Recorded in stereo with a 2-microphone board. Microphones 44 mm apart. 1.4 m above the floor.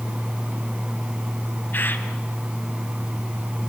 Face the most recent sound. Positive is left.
turn(degrees=50)  # may be behind; listen again after turning